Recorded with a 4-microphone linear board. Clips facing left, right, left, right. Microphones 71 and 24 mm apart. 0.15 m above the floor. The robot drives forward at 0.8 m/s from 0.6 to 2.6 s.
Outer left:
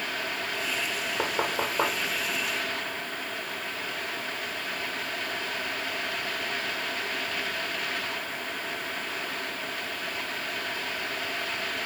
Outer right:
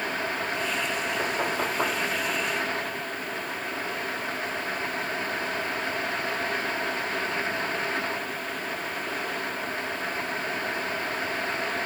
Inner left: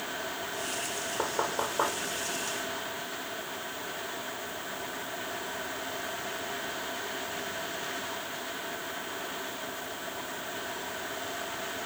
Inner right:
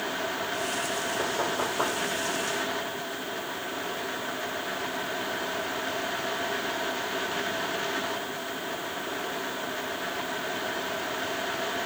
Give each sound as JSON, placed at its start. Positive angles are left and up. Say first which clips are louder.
{"t": 1.2, "sound": "knocking", "louder": "outer left 2 dB, even", "side_deg": 30, "distance_m": 5.5}